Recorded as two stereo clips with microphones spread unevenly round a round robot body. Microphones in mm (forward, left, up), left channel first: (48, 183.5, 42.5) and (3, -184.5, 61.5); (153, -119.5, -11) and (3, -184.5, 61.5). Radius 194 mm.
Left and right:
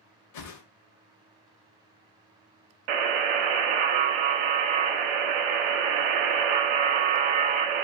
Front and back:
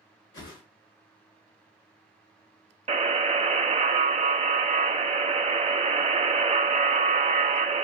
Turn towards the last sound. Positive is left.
turn(degrees=-95)